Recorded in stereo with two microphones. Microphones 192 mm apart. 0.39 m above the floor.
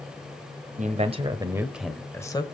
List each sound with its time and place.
0.8 s a man speaking: 40° right (ahead or behind), 1.6 m; by 2.4 s 20° left (ahead or behind), 1.5 m